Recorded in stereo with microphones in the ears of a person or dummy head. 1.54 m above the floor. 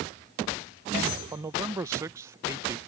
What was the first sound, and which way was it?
A man speaking, 20° right (ahead or behind).